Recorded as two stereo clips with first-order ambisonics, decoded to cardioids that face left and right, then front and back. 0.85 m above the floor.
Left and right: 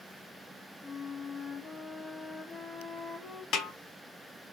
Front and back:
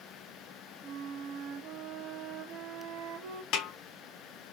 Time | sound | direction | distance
0.8 | a flute | 150° left | 1.5 m
3.5 | a snare drum | 40° left | 1.0 m